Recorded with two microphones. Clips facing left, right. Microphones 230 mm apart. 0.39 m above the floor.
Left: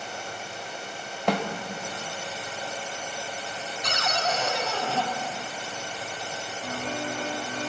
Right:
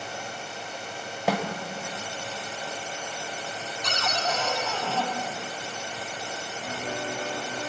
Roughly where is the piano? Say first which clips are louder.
Left 1 dB; centre.